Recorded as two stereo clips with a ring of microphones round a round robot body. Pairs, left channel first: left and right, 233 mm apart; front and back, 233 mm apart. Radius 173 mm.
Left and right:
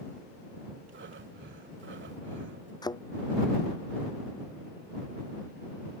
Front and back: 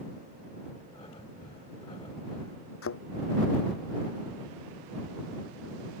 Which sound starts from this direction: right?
Breathing, at 0.9 s.